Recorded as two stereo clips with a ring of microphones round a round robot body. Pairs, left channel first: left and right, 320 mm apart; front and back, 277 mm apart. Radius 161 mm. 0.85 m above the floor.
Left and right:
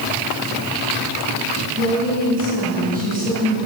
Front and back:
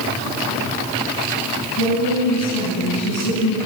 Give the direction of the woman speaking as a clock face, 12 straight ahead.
1 o'clock.